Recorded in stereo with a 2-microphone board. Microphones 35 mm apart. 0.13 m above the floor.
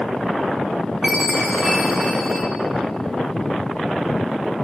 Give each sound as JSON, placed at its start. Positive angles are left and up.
{"t": 1.0, "sound": "a chime", "side_deg": -10, "distance_m": 2.5}